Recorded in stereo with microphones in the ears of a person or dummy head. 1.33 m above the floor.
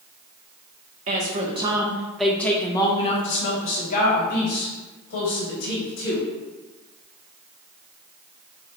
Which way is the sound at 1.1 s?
40° right (ahead or behind).